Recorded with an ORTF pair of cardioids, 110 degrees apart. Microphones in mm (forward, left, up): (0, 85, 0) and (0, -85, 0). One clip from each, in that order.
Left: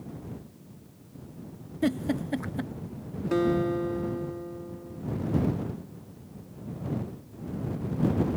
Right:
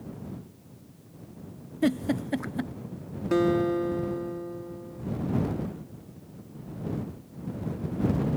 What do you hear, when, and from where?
1.8 s a giggle: 10° right
3.3 s a guitar: 15° right